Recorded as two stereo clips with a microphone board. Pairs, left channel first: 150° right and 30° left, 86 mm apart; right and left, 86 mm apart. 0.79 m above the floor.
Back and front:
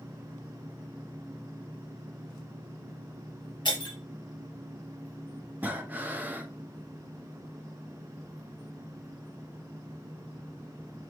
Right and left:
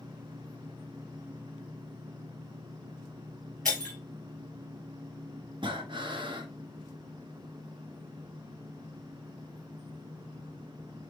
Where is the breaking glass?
170° right, 2.5 m.